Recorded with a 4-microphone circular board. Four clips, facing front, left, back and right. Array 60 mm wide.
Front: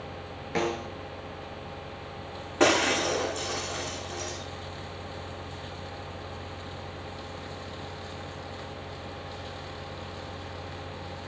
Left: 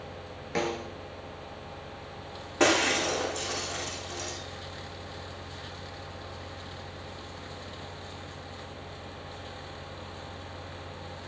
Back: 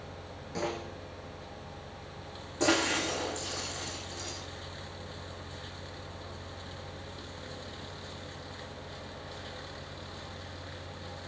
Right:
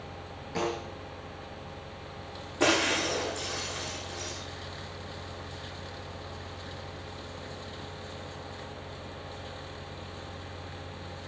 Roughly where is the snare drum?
Ahead left.